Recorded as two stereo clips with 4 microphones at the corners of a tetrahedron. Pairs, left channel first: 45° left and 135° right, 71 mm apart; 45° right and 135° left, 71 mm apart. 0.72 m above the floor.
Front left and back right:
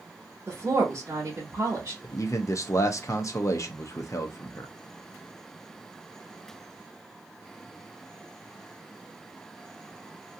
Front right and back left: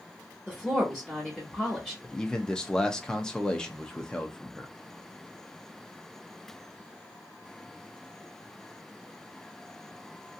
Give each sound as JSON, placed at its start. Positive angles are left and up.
{"t": 0.5, "sound": "a woman speaking", "azimuth_deg": -130, "distance_m": 1.0}
{"t": 2.0, "sound": "a man speaking", "azimuth_deg": 30, "distance_m": 0.6}